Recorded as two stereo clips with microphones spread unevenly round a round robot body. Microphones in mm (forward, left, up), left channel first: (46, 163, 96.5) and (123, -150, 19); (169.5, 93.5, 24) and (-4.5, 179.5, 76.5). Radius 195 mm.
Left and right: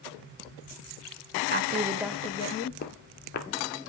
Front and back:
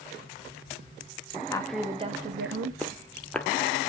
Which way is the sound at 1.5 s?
70° right.